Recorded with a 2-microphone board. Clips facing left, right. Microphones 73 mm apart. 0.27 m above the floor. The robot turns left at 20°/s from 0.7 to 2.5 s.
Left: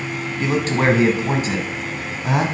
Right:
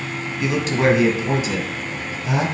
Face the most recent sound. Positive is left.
turn(degrees=95)